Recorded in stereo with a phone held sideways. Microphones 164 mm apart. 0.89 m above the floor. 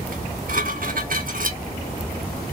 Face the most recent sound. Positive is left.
turn(degrees=-60)  # may be behind; listen again after turning